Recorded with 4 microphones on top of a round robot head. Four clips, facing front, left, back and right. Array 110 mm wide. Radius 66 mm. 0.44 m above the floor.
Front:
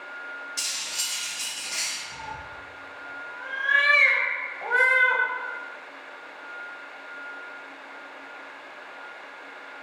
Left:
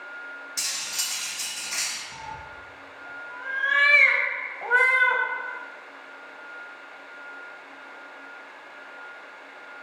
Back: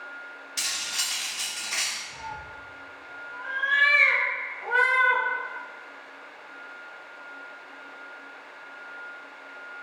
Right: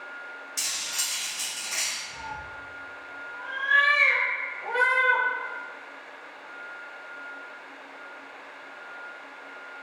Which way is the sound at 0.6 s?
165° left.